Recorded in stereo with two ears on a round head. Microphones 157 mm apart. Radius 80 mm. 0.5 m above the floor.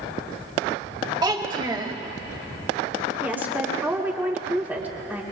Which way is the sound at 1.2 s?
25° right (ahead or behind).